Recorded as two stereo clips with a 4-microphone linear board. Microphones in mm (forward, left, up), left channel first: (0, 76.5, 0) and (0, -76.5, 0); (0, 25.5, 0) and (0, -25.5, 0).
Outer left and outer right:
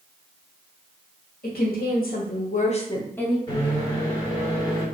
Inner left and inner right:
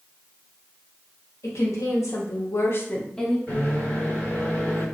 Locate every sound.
1.4 s a woman speaking: 90° left, 1.1 m; by 3.4 s centre (ahead or behind), 0.5 m
3.5 s a microwave: 30° left (ahead or behind), 1.7 m